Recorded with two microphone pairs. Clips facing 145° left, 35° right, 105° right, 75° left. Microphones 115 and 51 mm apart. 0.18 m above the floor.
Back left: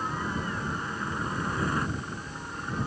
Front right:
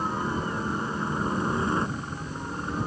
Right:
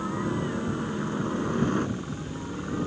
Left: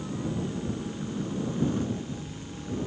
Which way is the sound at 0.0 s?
95° right.